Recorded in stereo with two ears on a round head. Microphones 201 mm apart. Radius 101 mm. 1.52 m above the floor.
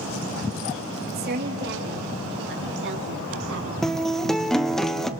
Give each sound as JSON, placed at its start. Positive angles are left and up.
{"t": 1.1, "sound": "a woman speaking", "side_deg": -45, "distance_m": 3.5}
{"t": 3.8, "sound": "a guitar", "side_deg": 0, "distance_m": 0.8}